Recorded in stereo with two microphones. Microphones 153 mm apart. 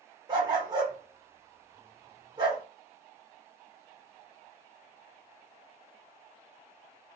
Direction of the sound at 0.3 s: 30° right (ahead or behind).